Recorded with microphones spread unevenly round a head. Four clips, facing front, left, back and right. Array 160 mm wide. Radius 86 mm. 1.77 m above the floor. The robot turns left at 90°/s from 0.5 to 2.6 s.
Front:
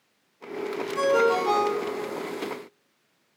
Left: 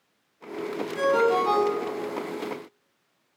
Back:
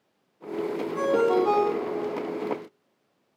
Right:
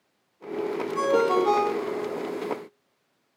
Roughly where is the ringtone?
Right.